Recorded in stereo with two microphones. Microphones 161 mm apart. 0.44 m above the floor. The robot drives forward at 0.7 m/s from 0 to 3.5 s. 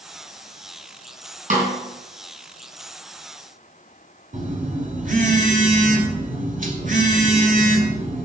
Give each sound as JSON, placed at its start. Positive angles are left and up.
{"t": 1.5, "sound": "a snare drum", "side_deg": -50, "distance_m": 3.5}
{"t": 4.3, "sound": "a phone buzzing", "side_deg": -55, "distance_m": 1.6}